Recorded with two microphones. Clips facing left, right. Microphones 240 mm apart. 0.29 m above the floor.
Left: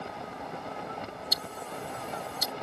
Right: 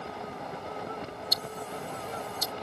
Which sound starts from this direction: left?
Ticking, at 1.3 s.